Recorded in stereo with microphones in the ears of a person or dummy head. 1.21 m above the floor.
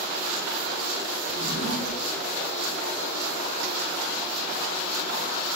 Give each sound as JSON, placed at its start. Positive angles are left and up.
{"t": 1.3, "sound": "a drawer", "side_deg": -55, "distance_m": 1.7}